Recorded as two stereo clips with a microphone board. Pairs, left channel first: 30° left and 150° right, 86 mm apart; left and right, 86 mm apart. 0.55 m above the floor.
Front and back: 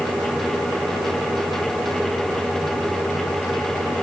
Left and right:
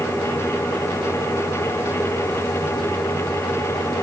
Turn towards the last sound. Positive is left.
No sound to turn to.